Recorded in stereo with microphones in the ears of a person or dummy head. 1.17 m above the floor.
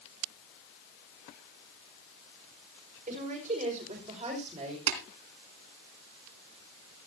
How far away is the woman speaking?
About 5 m.